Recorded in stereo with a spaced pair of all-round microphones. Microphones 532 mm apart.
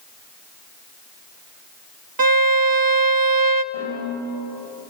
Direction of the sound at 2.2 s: 40° right (ahead or behind).